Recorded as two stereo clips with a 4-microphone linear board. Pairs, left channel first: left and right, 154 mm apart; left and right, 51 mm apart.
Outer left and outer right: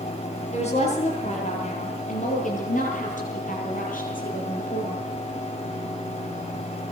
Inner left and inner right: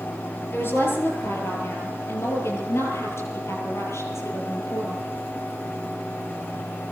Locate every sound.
0.5 s a woman speaking: 45° left (ahead or behind), 8.5 m; by 5.0 s 65° left (ahead or behind), 10.5 m